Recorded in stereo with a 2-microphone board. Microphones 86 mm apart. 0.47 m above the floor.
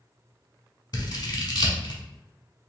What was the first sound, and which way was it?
Scissors, 55° left (ahead or behind).